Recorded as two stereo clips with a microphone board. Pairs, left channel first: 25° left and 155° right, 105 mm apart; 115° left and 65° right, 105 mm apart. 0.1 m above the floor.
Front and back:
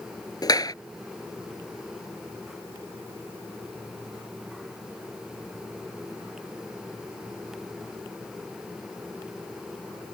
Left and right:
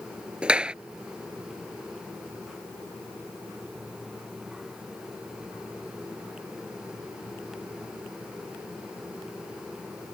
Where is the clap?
5° left.